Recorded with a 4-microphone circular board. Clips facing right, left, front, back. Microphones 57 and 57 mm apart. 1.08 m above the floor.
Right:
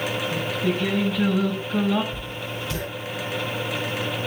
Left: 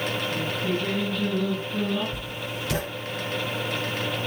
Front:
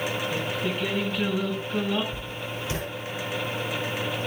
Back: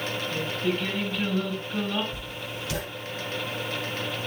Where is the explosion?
No explosion in this recording.